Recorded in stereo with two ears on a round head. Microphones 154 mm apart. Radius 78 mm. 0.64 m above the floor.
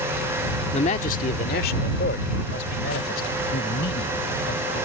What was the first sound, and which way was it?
A man speaking, 40° left (ahead or behind).